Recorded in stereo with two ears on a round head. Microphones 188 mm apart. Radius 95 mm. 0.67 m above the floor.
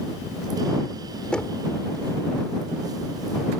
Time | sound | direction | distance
1.3 | knocking | 5° left (ahead or behind) | ?